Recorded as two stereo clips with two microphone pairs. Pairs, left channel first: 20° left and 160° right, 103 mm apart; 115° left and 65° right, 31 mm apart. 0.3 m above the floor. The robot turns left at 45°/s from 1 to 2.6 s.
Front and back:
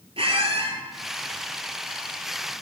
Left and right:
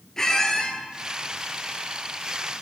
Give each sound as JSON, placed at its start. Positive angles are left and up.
{"t": 0.2, "sound": "a squeak", "azimuth_deg": -175, "distance_m": 0.9}